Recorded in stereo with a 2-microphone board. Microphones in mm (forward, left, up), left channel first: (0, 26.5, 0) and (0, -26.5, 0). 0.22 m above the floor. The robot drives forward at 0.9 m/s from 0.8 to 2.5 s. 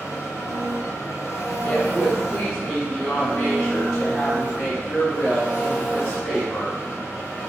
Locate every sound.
0.0 s an engine running: 60° left (ahead or behind), 1.1 m; by 7.5 s 45° left (ahead or behind), 1.3 m
1.6 s a woman speaking: 20° left (ahead or behind), 1.0 m; by 7.4 s 15° left (ahead or behind), 1.1 m